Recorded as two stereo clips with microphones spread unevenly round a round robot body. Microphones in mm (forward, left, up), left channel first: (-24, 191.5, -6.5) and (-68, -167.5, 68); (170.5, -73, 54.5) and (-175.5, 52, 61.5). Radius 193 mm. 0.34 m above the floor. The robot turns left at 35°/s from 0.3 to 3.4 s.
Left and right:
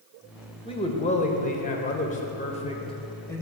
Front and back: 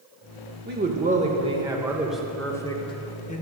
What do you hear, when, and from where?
0.7 s a man speaking: 120° left, 0.9 m; by 3.4 s 25° left, 0.9 m